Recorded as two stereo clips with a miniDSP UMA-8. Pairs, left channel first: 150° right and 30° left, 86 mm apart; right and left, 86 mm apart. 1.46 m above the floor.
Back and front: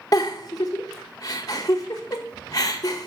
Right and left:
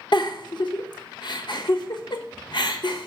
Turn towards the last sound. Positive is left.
turn(degrees=-110)